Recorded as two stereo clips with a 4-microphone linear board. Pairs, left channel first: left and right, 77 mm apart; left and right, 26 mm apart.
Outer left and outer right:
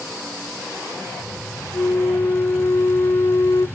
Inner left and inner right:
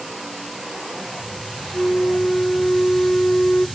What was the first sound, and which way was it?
A flute, 55° left (ahead or behind).